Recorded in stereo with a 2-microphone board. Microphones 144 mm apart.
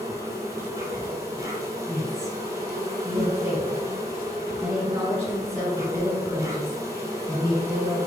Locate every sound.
0.0 s an insect: 25° right (ahead or behind), 1.0 m
1.9 s a woman speaking: 20° right (ahead or behind), 1.7 m